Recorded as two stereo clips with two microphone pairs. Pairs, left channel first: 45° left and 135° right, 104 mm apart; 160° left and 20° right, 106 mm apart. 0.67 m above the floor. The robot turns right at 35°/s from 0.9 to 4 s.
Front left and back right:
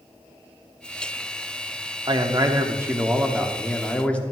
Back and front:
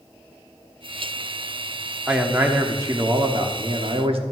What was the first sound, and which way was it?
A man speaking, 100° right.